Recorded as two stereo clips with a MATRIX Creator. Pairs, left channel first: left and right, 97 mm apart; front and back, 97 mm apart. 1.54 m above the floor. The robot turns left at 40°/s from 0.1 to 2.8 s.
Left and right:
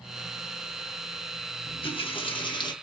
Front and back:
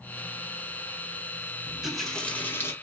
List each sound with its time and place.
1.7 s a running tap: 100° left, 1.4 m; by 2.7 s 60° left, 1.4 m